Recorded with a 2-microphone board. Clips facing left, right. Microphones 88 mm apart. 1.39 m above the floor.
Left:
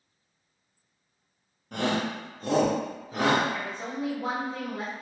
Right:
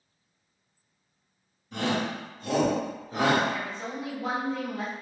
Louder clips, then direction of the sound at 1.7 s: Left 1 dB; 65° left (ahead or behind).